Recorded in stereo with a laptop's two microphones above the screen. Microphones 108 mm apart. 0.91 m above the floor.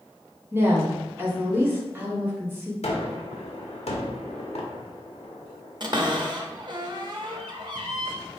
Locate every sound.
0.5 s a woman speaking: 20° right (ahead or behind), 1.1 m
2.8 s a gunshot: 80° left, 0.8 m
5.8 s a cupboard door: 45° right (ahead or behind), 0.7 m